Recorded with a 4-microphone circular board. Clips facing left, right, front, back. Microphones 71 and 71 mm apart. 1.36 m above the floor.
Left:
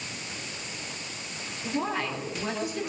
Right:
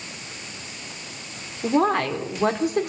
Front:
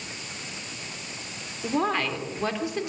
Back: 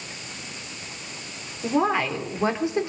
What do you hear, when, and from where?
1.6 s a woman speaking: 100° right, 4 m; by 2.9 s 120° right, 3.5 m